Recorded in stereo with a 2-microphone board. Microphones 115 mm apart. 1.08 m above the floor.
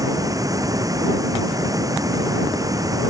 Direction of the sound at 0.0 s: 30° right (ahead or behind).